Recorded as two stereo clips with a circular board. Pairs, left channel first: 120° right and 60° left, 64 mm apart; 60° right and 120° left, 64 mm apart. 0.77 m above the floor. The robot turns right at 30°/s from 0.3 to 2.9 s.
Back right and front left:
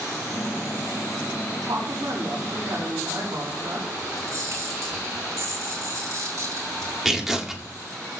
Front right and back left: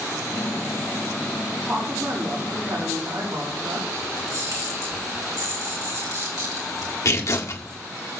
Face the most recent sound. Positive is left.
turn(degrees=-30)